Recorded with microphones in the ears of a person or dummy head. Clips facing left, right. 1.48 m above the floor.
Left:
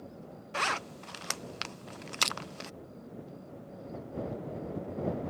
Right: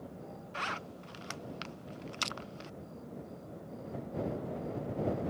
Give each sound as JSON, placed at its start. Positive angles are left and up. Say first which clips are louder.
{"t": 0.5, "sound": "a zipper", "louder": "left 7 dB", "side_deg": 60}
{"t": 2.2, "sound": "crushing", "louder": "left 6 dB", "side_deg": 65}